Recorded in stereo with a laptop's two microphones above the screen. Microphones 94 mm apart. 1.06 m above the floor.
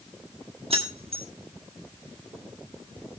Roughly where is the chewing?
I don't hear chewing.